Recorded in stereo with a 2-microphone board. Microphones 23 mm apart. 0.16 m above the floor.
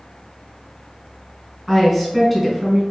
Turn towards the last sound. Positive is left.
turn(degrees=0)  # may be behind; listen again after turning